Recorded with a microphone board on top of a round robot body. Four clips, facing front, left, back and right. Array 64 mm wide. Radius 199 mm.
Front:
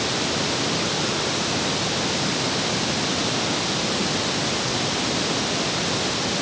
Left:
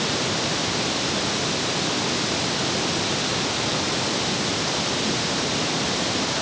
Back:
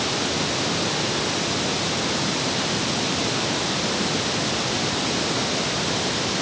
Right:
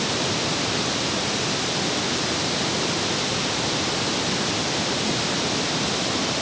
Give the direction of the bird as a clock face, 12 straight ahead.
I don't hear a bird.